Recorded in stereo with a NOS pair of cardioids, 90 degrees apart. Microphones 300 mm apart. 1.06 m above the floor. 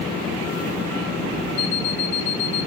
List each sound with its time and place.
1.6 s an alarm clock: 65° left, 4 m